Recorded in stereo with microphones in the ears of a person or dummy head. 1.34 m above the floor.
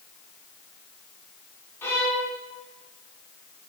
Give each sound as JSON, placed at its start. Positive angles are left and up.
{"t": 1.8, "sound": "a violin", "side_deg": 15, "distance_m": 2.5}